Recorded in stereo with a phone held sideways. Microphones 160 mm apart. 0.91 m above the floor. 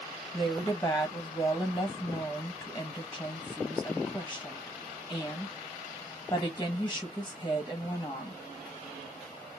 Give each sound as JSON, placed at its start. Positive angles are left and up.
{"t": 0.3, "sound": "a woman speaking", "side_deg": 10, "distance_m": 0.9}